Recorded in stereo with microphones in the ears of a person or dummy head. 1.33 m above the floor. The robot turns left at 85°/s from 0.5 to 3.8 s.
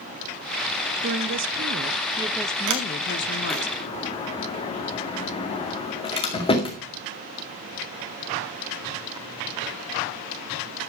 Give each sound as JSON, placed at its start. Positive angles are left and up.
{"t": 1.0, "sound": "a woman speaking", "azimuth_deg": -60, "distance_m": 0.6}
{"t": 2.7, "sound": "a sliding door", "side_deg": -70, "distance_m": 2.0}